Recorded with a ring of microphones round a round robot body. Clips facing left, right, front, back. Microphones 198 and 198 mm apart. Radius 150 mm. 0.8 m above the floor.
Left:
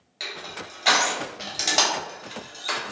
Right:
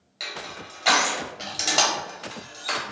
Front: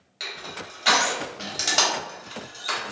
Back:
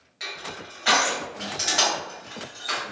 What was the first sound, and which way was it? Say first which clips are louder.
Crushing: left 1 dB, even; 5° left.